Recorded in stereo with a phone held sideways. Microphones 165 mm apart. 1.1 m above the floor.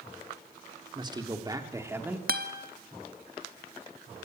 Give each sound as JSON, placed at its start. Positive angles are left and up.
{"t": 0.9, "sound": "a man speaking", "side_deg": -25, "distance_m": 2.5}
{"t": 2.3, "sound": "a guitar", "side_deg": -65, "distance_m": 1.8}